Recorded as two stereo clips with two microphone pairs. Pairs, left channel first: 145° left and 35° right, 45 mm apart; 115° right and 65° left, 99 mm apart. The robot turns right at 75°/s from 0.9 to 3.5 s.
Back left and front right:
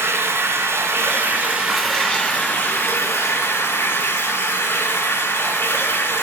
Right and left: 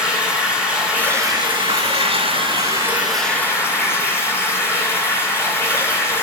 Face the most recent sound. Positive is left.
turn(degrees=180)